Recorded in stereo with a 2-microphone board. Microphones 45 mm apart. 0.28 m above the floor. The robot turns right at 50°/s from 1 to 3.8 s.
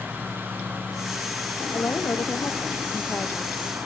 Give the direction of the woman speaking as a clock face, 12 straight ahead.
10 o'clock.